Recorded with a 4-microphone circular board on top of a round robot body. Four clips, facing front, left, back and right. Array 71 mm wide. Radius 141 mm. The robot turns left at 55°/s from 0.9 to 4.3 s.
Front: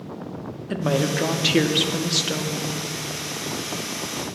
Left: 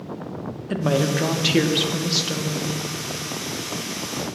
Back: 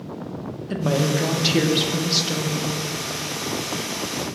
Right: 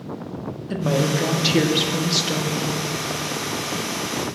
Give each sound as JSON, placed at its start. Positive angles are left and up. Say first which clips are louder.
{"t": 0.7, "sound": "a woman speaking", "louder": "even, back 1 dB", "azimuth_deg": 60, "distance_m": 1.0}